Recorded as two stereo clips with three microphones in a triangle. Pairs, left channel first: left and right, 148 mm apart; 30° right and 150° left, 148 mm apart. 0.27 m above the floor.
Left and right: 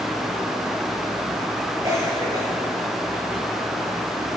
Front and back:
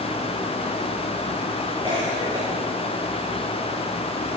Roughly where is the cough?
Behind right.